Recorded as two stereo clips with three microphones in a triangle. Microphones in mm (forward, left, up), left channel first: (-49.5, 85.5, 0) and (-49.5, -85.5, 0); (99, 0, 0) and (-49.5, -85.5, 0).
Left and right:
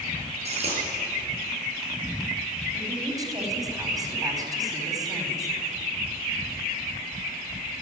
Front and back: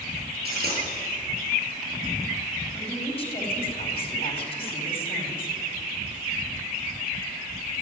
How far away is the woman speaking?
About 4.5 m.